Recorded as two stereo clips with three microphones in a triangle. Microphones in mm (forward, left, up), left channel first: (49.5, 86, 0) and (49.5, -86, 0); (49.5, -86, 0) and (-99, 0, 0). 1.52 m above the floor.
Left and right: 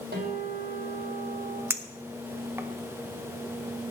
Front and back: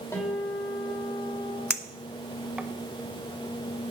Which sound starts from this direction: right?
A guitar, at 0.1 s.